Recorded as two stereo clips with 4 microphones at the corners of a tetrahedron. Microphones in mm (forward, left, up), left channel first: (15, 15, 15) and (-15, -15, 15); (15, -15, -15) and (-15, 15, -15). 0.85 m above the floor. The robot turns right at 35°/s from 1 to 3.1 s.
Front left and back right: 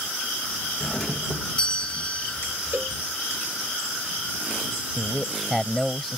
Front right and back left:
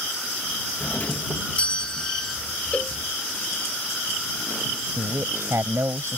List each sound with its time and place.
0.8 s a doorbell: 25° right; by 2.4 s 25° left
2.7 s a cowbell: 100° right; by 3.0 s 90° right
5.0 s a man speaking: 135° left